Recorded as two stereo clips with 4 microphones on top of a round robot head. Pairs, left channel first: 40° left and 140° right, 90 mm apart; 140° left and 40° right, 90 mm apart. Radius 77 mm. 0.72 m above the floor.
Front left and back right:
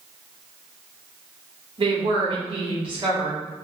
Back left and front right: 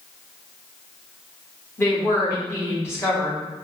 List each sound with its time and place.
1.8 s a woman speaking: 160° right, 1.6 m